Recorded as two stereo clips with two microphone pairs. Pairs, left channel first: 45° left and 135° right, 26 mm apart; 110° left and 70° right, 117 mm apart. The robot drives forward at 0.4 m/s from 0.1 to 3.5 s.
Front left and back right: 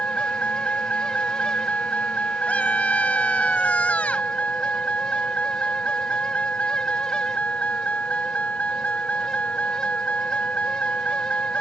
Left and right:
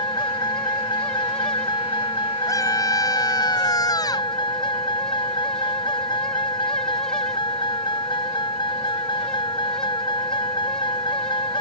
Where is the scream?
55° left; by 4.3 s 60° left.